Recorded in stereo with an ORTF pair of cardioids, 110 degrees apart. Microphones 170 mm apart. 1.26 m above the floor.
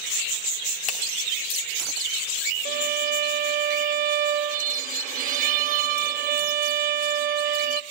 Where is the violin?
55° right, 1.1 m.